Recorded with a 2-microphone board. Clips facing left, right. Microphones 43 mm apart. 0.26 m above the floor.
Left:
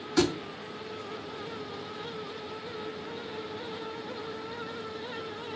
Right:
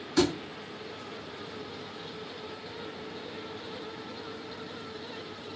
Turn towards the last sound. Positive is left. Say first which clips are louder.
# even
turn(degrees=5)  # may be behind; listen again after turning